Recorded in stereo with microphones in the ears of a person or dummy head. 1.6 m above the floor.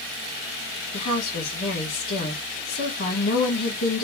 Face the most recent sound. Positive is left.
turn(degrees=55)  # may be behind; listen again after turning